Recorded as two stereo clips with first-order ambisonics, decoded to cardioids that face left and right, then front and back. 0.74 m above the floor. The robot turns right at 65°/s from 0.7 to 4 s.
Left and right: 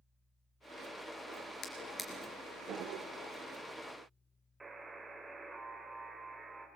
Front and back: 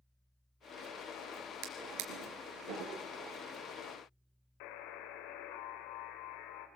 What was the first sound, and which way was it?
A drawer, 150° left.